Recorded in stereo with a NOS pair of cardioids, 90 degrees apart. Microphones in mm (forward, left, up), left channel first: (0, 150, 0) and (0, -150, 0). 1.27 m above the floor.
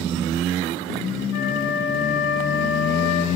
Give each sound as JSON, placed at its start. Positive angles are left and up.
{"t": 1.3, "sound": "a flute", "azimuth_deg": 65, "distance_m": 1.9}